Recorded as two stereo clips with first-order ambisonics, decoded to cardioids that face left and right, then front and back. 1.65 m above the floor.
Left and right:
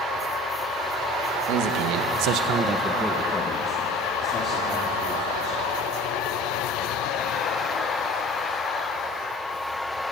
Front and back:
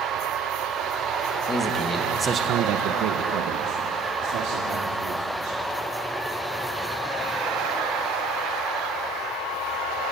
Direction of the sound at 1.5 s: 70° right.